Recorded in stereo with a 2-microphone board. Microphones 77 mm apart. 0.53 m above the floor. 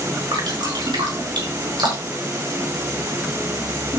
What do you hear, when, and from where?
0.3 s dripping: 70° right (ahead or behind), 6.5 m